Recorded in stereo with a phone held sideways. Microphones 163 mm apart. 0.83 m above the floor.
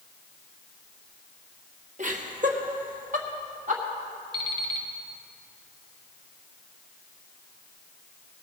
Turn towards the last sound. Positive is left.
turn(degrees=-30)  # may be behind; listen again after turning